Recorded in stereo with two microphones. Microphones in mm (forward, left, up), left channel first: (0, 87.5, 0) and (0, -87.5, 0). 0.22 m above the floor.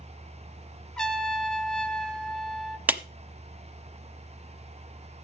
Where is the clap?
10° right (ahead or behind), 0.9 m.